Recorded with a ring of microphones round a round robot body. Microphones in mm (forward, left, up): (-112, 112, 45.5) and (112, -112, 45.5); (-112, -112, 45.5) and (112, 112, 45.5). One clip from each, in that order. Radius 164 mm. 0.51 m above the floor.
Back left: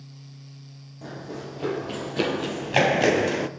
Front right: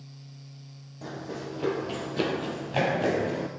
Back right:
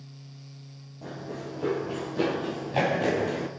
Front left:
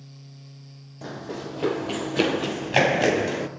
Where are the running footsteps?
35° left, 1.8 m; by 3.5 s 115° left, 1.0 m.